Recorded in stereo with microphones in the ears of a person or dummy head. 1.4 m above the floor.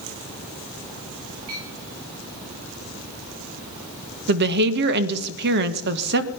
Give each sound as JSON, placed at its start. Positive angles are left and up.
{"t": 1.5, "sound": "a clink", "side_deg": -25, "distance_m": 9.5}
{"t": 4.3, "sound": "a woman speaking", "side_deg": -60, "distance_m": 1.2}